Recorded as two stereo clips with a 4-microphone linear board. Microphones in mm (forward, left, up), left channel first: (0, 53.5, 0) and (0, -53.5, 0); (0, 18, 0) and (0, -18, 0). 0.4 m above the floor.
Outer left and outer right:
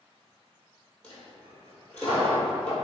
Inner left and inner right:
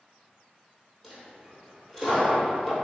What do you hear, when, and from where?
1.0 s a dropped coin: 10° left (ahead or behind), 1.4 m